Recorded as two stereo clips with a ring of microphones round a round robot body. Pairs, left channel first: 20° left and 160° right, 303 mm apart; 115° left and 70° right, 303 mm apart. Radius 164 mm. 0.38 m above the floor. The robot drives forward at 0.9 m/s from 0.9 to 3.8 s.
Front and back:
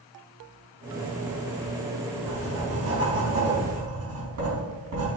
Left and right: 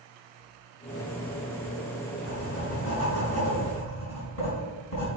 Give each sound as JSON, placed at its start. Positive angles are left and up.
{"t": 2.3, "sound": "writing", "azimuth_deg": 155, "distance_m": 4.0}